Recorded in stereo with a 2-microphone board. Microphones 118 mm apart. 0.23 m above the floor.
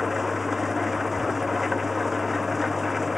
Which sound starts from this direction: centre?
An engine running, at 0.0 s.